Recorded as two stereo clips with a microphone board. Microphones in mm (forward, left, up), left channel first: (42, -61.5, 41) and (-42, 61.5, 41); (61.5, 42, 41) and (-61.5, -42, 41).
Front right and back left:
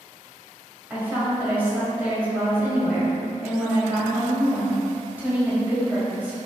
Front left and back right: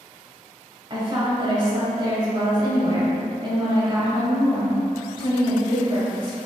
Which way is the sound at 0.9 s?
170° right.